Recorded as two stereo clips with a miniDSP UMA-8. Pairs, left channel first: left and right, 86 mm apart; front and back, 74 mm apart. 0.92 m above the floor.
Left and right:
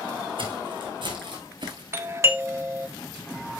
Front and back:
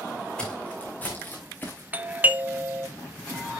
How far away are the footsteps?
About 3.5 m.